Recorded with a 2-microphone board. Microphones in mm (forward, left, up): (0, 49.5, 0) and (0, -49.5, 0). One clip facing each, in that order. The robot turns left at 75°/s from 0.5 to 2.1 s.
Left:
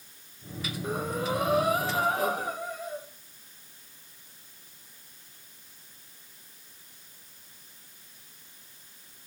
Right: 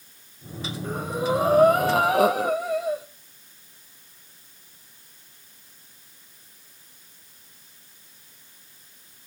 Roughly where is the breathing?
Ahead.